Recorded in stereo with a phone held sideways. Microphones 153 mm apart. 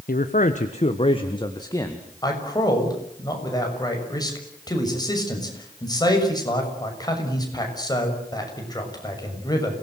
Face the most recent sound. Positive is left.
turn(degrees=25)  # may be behind; listen again after turning